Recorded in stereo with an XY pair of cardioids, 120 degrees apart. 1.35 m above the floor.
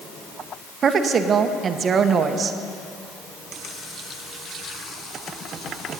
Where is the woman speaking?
45° right, 1.0 m.